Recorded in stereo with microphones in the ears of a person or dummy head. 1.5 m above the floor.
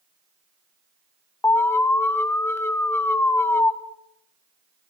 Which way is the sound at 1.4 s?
15° left (ahead or behind).